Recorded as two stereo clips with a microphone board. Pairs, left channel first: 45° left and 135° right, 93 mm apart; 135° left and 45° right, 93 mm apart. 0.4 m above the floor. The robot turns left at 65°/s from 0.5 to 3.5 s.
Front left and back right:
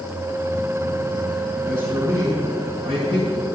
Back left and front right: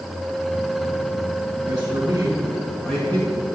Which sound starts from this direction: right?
A man speaking, at 1.6 s.